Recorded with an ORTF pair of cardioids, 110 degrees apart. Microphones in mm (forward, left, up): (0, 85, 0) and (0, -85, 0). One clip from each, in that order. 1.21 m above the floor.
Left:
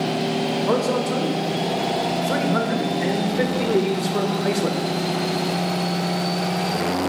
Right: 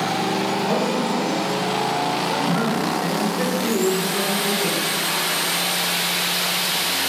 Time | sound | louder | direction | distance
0.7 | a man speaking | even | 40° left | 1.7 m